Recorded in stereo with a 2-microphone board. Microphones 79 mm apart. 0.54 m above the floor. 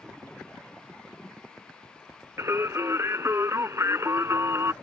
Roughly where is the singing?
Right.